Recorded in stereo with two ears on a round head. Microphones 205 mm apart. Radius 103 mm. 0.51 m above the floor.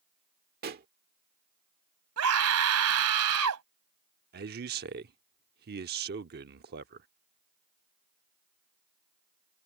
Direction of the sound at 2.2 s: 75° right (ahead or behind).